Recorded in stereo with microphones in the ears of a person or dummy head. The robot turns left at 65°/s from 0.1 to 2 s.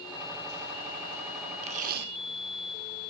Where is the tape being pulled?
35° right (ahead or behind); by 2.1 s 55° right (ahead or behind).